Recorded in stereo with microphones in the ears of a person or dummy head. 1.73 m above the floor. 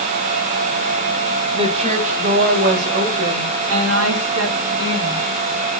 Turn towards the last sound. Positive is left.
turn(degrees=-65)  # may be behind; listen again after turning